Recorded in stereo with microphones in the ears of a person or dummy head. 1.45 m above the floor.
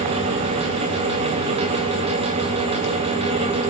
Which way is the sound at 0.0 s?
40° right (ahead or behind).